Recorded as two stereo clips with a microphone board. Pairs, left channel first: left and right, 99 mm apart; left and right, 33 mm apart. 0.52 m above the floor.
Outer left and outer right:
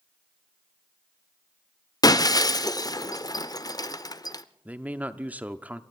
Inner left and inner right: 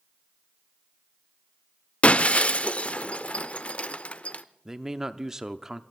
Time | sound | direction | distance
2.0 | breaking glass | 40° left (ahead or behind) | 0.6 m
4.7 | a man speaking | 15° right (ahead or behind) | 0.6 m